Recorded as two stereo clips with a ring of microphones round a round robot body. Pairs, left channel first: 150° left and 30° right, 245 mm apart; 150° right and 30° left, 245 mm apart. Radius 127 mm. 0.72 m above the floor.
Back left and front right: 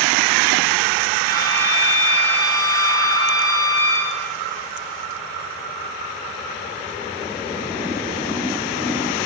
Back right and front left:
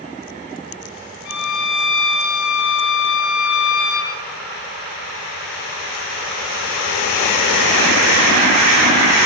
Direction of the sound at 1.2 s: 130° right.